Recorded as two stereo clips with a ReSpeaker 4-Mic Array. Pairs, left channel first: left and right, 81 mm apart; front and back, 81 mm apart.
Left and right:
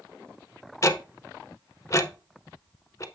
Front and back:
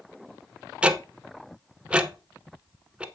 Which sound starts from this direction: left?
Ticking, at 0.8 s.